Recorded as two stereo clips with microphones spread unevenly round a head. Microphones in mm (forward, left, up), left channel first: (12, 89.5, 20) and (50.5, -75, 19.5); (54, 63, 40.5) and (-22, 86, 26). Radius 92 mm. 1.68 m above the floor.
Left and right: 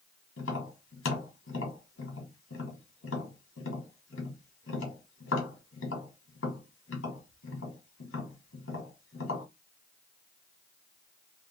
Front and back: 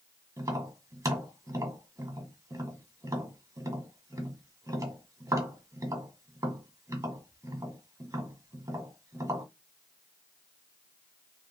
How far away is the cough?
I don't hear a cough.